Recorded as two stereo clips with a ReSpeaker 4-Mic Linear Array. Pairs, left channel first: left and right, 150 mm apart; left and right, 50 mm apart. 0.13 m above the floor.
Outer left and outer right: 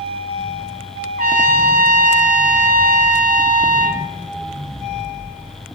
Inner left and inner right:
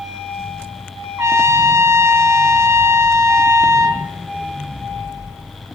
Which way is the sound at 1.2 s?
70° right (ahead or behind).